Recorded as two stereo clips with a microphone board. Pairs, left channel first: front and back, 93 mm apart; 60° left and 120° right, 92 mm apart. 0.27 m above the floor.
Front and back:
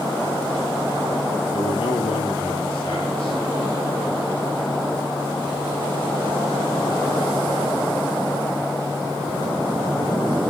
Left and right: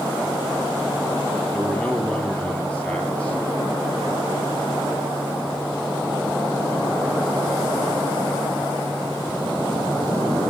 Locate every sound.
1.5 s a man speaking: 15° right, 4.5 m